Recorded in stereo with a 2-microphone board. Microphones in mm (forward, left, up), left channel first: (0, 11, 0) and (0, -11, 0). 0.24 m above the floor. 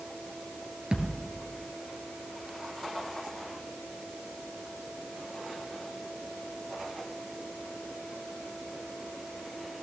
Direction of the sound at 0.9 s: 45° right (ahead or behind).